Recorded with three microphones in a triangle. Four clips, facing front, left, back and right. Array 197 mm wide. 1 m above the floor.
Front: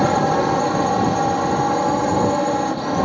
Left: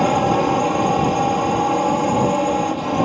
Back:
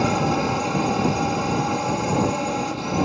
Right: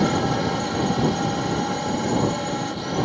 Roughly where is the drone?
Ahead left.